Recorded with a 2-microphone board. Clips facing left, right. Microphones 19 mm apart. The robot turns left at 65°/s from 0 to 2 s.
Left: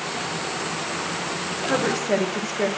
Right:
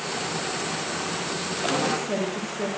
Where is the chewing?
I don't hear chewing.